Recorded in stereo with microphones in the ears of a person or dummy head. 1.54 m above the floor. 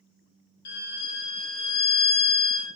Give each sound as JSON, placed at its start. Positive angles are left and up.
{"t": 0.7, "sound": "a violin", "side_deg": 55, "distance_m": 0.9}